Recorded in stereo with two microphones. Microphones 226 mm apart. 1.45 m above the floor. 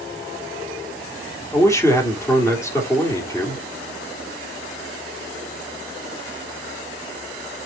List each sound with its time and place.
1.5 s a man speaking: 10° left (ahead or behind), 3.5 m